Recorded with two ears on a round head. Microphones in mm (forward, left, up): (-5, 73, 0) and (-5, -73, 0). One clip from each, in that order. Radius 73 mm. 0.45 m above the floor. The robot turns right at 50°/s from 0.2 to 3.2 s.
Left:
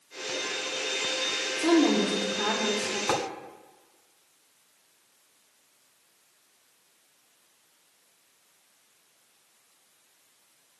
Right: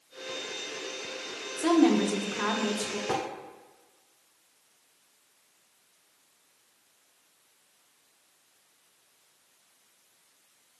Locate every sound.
1.6 s a woman speaking: 25° right (ahead or behind), 0.8 m; by 3.0 s 15° right (ahead or behind), 0.8 m
3.1 s tapping: 80° left, 0.9 m; by 3.2 s 75° left (ahead or behind), 0.9 m